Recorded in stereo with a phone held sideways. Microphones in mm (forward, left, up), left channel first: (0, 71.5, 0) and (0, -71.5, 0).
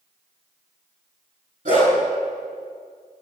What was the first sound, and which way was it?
A dog barking, 65° right (ahead or behind).